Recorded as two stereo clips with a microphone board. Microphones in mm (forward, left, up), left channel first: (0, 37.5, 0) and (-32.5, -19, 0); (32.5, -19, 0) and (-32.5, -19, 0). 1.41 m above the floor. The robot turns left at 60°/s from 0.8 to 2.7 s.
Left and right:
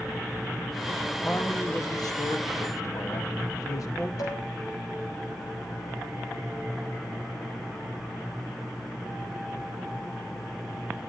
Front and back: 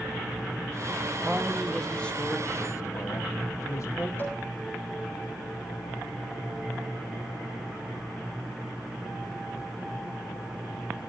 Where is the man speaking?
120° left, 1.9 m; by 4.1 s 35° left, 1.9 m.